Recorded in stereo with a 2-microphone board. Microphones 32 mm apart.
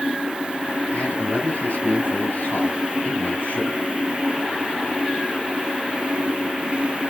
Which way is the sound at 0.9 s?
80° left.